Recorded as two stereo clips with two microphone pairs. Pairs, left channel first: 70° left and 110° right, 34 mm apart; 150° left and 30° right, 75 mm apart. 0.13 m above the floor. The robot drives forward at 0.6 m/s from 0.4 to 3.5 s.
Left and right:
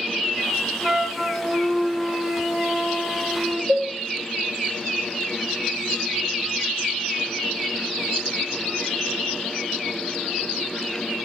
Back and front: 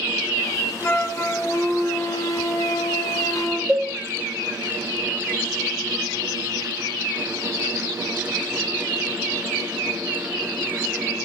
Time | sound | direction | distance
0.8 | a flute | 175° left | 0.9 m
3.7 | a cowbell | 140° right | 5 m